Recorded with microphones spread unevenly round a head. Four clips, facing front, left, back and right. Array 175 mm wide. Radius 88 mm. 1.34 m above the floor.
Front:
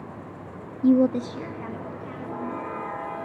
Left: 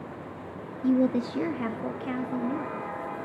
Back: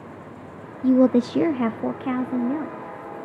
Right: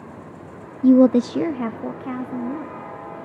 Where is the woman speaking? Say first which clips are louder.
Right 10 dB, back 3 dB; 75° right, 0.5 m; by 2.9 s 175° right, 3 m.